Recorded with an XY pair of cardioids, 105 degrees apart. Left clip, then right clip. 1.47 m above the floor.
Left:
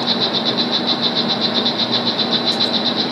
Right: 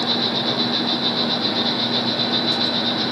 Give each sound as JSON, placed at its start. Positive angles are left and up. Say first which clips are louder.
{"t": 0.0, "sound": "an insect", "louder": "left 3 dB", "azimuth_deg": 45, "distance_m": 1.1}